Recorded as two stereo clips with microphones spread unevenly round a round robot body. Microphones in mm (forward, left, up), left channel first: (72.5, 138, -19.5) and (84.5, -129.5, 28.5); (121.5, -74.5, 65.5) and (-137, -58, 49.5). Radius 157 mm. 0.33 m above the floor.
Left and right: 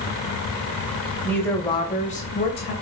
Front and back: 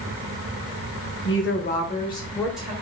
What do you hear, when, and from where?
1.2 s a woman speaking: 20° left, 1.7 m; by 2.7 s 100° left, 1.6 m